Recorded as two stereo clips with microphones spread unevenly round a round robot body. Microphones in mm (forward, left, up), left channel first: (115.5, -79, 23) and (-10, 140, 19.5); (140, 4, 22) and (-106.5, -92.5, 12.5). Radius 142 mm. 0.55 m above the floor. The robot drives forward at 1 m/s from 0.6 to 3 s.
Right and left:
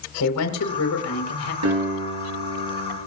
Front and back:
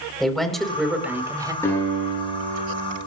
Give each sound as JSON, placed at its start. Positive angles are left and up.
{"t": 0.2, "sound": "a woman speaking", "azimuth_deg": -70, "distance_m": 3.5}
{"t": 1.6, "sound": "a guitar", "azimuth_deg": 100, "distance_m": 9.5}